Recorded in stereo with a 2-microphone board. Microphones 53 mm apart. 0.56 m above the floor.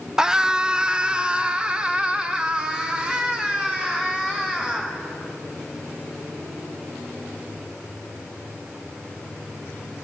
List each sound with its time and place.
0.2 s a scream: 15° right (ahead or behind), 0.8 m